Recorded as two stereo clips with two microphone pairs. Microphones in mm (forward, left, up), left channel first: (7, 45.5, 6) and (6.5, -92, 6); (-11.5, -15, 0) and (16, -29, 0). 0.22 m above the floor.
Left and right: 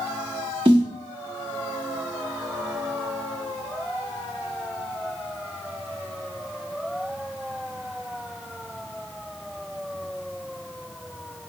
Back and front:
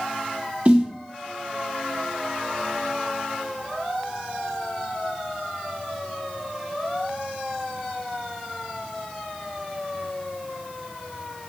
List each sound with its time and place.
0.7 s a snare drum: 60° right, 1.0 m